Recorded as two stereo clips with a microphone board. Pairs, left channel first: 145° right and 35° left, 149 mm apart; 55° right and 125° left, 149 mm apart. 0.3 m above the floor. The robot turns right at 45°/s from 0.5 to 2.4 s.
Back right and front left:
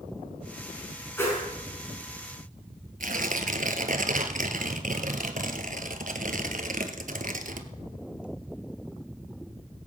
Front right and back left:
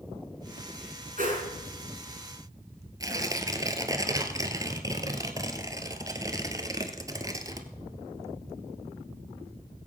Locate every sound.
1.2 s a whoosh: 140° left, 4.5 m; by 1.5 s 155° left, 4.5 m
3.0 s tearing paper: 55° left, 1.3 m